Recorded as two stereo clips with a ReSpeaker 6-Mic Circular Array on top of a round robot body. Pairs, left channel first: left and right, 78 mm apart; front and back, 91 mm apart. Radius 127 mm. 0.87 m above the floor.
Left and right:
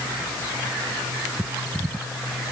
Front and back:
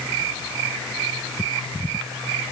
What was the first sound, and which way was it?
Only background noise.